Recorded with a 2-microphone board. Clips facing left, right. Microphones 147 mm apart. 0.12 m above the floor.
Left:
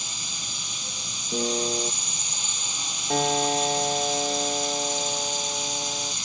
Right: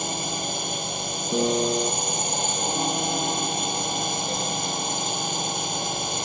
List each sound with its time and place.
0.0 s a drone: 55° right (ahead or behind)
1.3 s a piano: 15° right (ahead or behind)
3.1 s a piano: 75° left (ahead or behind)